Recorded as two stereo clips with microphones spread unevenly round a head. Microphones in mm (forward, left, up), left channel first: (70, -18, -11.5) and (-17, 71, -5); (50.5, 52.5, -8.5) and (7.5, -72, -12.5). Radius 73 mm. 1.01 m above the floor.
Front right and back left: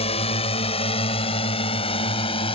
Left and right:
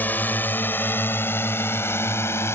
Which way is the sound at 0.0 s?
5° right.